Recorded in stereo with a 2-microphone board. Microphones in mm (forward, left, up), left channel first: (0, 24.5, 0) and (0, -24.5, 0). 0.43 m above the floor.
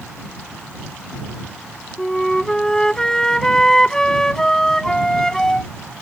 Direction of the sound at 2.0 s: 15° left (ahead or behind).